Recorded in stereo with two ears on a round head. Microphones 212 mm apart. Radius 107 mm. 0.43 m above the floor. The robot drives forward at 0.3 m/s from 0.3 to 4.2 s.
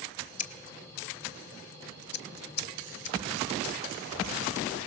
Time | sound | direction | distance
0.4 | scissors | 30° left (ahead or behind) | 1.2 m